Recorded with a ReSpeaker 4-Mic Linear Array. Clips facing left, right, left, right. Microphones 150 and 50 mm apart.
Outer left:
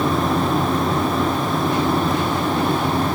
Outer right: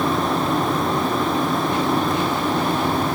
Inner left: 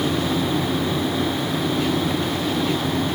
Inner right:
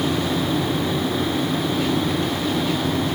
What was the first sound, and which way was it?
Only background noise.